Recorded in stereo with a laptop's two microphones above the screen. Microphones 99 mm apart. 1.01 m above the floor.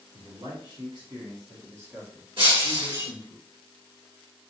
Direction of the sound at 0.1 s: 60° right (ahead or behind).